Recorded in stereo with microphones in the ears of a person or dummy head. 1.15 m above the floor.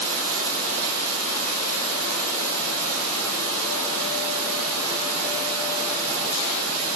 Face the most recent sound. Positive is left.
turn(degrees=-85)